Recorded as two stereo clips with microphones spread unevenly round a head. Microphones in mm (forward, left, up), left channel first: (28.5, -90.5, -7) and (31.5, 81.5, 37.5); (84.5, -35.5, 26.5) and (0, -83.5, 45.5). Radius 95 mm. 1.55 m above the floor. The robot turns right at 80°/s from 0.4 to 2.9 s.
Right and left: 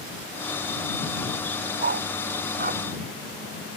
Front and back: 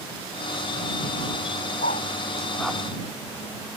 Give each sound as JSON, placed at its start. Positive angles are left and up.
{"t": 1.8, "sound": "a dog barking", "azimuth_deg": 55}